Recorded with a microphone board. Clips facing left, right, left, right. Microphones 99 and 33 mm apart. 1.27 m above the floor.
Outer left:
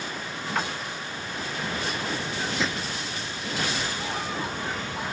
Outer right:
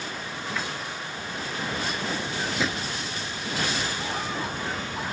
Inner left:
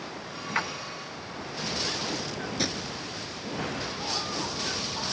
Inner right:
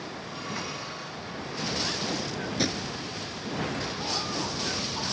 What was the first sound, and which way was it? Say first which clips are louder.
A splash: outer left 5 dB, inner left 9 dB; 55° left (ahead or behind).